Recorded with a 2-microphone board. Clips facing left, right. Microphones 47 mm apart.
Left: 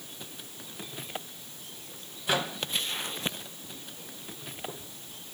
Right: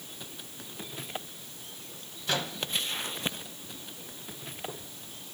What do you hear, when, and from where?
2.3 s a microwave: 15° left (ahead or behind), 1.1 m